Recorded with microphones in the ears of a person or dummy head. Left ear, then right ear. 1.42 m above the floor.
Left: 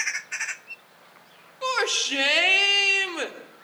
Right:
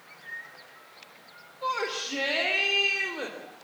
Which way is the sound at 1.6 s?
75° left (ahead or behind).